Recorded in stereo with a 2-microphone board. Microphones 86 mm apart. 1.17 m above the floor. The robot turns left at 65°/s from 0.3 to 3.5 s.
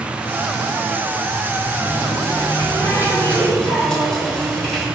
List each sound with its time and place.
1.8 s a running tap: 115° left, 1.5 m; by 4.9 s 5° left, 1.5 m